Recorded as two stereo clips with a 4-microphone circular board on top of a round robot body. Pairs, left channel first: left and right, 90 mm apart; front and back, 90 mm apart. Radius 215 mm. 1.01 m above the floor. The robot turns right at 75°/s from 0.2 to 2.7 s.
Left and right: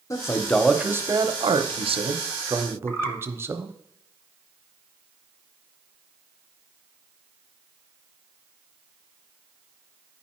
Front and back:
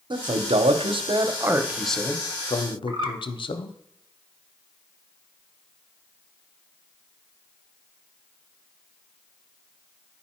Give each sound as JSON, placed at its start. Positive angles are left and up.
{"t": 0.1, "sound": "a man speaking", "azimuth_deg": 145, "distance_m": 0.8}
{"t": 2.9, "sound": "a bird", "azimuth_deg": 155, "distance_m": 1.5}